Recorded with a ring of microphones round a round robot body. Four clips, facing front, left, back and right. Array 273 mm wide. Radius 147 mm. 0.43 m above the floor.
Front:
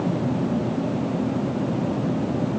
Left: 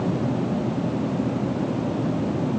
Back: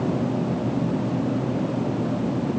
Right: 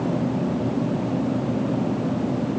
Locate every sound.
Only background noise.